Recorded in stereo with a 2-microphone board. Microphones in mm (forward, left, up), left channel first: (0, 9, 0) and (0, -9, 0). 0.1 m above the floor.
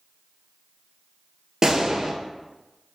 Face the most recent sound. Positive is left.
turn(degrees=-30)  # may be behind; listen again after turning